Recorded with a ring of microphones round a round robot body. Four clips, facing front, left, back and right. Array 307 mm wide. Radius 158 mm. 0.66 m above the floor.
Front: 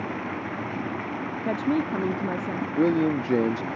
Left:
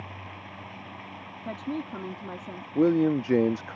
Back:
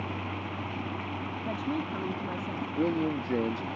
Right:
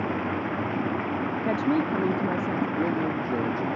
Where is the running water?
75° right.